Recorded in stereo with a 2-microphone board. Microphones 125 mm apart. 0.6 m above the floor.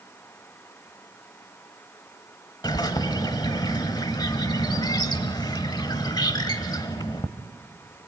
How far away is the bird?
About 1.0 m.